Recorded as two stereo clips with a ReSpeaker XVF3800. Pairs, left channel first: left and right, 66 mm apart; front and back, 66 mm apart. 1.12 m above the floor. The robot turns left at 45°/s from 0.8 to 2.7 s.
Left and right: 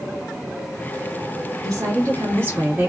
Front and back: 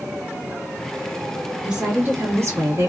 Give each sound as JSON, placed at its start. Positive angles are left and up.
{"t": 1.6, "sound": "a woman speaking", "azimuth_deg": -100, "distance_m": 1.9}